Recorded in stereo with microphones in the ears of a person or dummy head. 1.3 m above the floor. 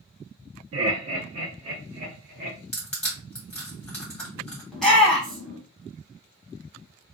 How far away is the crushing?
About 1.4 m.